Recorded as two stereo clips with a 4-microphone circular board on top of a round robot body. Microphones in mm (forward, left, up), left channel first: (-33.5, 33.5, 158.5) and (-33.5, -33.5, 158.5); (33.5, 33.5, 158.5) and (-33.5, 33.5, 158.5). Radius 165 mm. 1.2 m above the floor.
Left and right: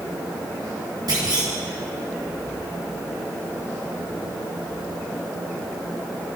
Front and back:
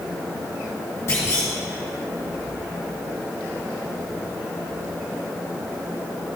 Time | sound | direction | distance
1.1 | a clunk | 55° right | 2.5 m